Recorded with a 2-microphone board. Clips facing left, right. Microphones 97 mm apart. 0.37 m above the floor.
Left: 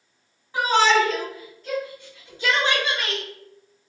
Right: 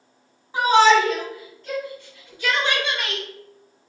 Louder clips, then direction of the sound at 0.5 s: Right 4 dB; 20° right (ahead or behind).